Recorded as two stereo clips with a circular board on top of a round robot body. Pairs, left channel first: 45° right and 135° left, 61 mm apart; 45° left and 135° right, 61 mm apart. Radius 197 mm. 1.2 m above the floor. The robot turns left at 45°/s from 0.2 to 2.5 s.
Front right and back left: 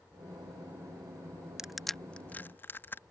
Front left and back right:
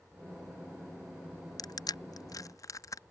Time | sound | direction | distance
1.6 | crushing | 55° left | ?